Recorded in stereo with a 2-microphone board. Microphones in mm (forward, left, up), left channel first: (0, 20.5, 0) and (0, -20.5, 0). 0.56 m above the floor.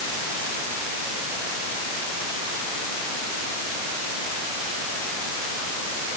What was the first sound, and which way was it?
Only background noise.